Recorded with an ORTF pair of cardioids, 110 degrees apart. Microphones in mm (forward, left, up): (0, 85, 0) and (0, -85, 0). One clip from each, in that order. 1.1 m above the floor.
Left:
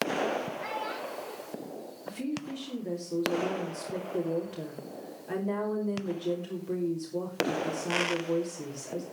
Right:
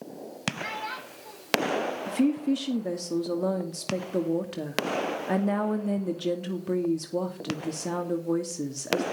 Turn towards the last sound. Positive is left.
turn(degrees=-55)